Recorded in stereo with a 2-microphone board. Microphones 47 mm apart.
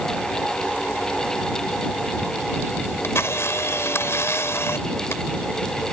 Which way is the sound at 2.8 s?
70° left (ahead or behind).